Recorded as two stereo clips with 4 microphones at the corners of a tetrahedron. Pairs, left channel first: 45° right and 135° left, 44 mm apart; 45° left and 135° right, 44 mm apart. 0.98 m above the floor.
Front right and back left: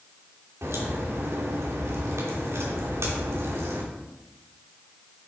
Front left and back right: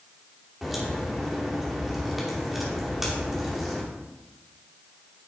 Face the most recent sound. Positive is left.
turn(degrees=140)